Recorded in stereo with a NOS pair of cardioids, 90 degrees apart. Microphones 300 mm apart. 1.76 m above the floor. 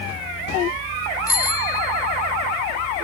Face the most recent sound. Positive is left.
turn(degrees=10)